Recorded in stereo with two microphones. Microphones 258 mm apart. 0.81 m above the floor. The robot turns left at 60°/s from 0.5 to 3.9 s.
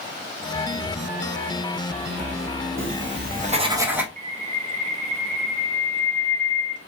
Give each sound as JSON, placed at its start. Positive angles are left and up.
{"t": 2.8, "sound": "writing", "side_deg": -50, "distance_m": 0.9}
{"t": 4.2, "sound": "a bird", "side_deg": -30, "distance_m": 0.8}